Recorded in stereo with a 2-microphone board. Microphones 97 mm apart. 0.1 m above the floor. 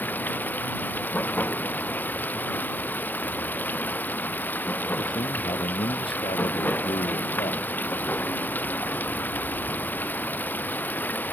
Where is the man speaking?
70° left (ahead or behind).